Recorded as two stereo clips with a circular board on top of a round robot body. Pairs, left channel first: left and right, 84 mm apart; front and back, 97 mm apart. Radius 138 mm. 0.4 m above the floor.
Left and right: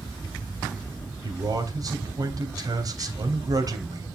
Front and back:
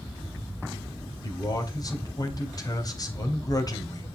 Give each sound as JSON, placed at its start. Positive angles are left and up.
{"t": 1.2, "sound": "a man speaking", "azimuth_deg": -50, "distance_m": 3.0}